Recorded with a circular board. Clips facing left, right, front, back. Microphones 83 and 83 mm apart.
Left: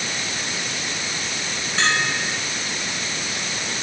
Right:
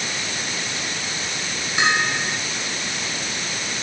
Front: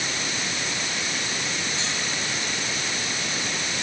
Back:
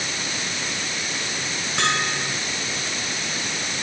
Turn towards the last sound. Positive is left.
turn(degrees=-165)